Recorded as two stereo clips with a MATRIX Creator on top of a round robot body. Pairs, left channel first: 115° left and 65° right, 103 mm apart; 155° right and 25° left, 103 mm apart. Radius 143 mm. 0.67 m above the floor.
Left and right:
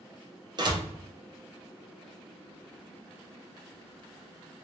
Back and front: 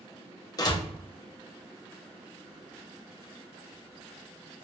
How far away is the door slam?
About 0.8 m.